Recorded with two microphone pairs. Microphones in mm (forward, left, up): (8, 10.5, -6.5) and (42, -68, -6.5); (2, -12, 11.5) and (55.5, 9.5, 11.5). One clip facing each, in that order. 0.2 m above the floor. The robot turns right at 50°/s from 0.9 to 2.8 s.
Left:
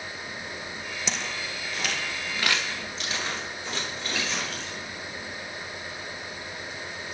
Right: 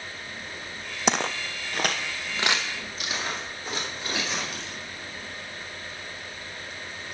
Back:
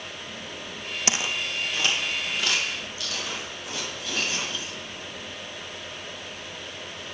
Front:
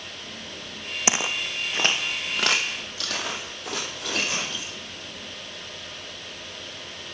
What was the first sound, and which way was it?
Footsteps, 45° right.